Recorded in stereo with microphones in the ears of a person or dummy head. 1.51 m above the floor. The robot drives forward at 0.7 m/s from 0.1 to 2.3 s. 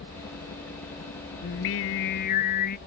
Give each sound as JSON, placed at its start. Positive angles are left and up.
{"t": 0.0, "sound": "a helicopter", "side_deg": 60}
{"t": 1.4, "sound": "singing", "side_deg": 60}